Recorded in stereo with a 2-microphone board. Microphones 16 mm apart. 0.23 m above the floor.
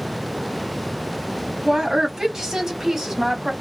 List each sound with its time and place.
1.6 s a woman speaking: 35° right (ahead or behind), 1.3 m